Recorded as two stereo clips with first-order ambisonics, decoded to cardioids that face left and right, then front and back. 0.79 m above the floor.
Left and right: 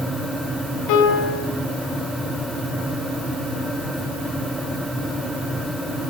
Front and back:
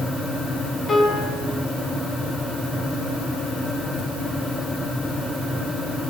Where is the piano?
75° left, 7 m.